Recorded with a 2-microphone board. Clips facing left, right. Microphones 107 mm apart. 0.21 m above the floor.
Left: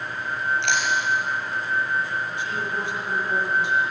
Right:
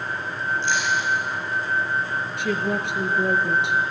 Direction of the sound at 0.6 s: 70° left (ahead or behind).